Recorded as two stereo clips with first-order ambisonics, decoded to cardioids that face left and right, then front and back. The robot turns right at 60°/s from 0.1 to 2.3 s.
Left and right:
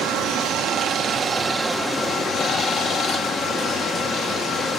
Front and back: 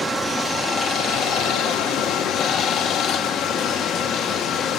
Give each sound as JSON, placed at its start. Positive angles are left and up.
{"t": 0.0, "sound": "running water", "azimuth_deg": -105, "distance_m": 1.1}